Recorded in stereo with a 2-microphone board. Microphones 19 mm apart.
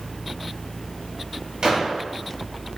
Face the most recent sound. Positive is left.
turn(degrees=-55)  # may be behind; listen again after turning